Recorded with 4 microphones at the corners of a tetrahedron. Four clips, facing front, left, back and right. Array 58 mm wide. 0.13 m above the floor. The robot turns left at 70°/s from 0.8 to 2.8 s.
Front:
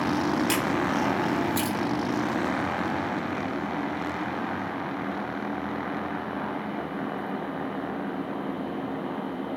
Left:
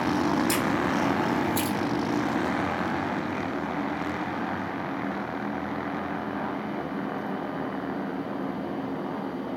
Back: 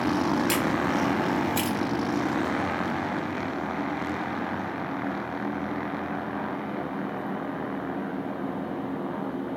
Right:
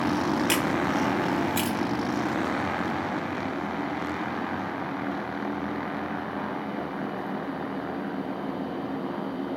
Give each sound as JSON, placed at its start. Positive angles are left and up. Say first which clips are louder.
{"t": 0.5, "sound": "a camera shutter", "louder": "even, even", "azimuth_deg": -80, "distance_m": 1.2}